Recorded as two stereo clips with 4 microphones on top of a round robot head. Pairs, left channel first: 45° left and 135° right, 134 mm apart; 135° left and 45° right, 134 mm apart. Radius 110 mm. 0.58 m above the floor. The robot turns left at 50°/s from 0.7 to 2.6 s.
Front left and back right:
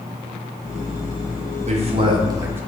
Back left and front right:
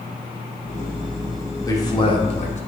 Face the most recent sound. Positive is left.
turn(degrees=155)